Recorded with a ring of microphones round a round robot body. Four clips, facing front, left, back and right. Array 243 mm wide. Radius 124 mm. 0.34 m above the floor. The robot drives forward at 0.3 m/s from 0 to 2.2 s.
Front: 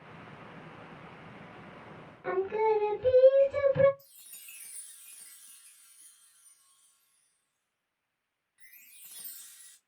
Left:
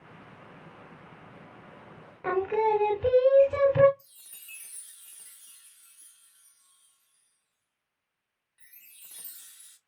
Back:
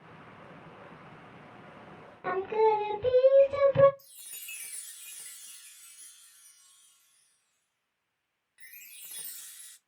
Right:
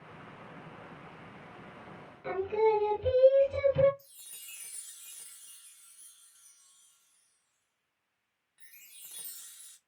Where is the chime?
175° left, 0.6 m.